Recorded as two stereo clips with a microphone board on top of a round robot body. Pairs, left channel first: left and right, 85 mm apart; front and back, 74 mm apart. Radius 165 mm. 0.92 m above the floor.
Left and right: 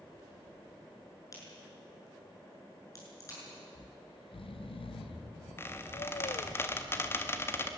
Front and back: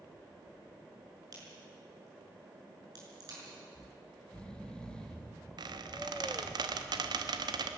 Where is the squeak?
155° left, 1.2 m.